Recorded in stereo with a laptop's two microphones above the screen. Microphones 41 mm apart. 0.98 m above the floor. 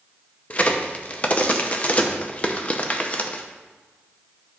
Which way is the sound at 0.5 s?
30° left (ahead or behind).